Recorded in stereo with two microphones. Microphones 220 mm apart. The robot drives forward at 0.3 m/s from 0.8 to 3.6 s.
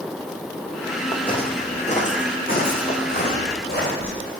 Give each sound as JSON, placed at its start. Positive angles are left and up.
{"t": 1.1, "sound": "footsteps", "side_deg": 20, "distance_m": 1.3}